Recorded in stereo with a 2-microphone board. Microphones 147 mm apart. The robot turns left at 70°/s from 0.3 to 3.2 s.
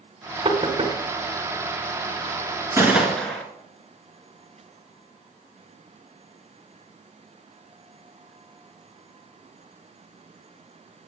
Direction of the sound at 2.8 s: 155° right.